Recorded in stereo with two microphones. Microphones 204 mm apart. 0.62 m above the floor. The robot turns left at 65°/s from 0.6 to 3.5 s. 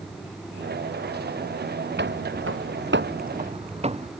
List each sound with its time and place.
2.0 s footsteps: 55° right (ahead or behind); by 4.1 s 35° right (ahead or behind)